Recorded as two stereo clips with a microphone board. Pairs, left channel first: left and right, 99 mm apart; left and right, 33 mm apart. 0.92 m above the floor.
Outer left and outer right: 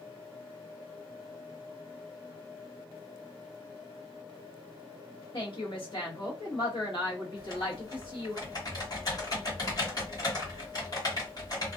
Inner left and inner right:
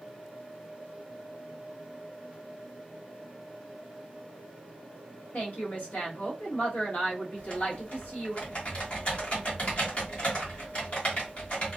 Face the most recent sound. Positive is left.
turn(degrees=40)  # may be behind; listen again after turning